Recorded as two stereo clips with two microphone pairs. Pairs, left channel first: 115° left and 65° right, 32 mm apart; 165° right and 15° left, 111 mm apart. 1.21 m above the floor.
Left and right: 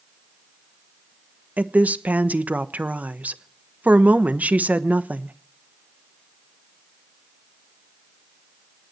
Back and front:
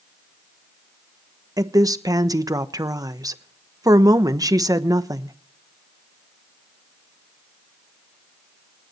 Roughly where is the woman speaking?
Ahead right.